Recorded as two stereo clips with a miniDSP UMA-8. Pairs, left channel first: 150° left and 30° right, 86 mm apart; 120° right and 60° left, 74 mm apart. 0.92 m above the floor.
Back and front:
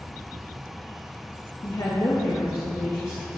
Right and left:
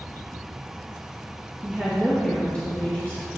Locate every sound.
1.6 s a woman speaking: 135° left, 1.3 m; by 3.3 s 170° right, 1.9 m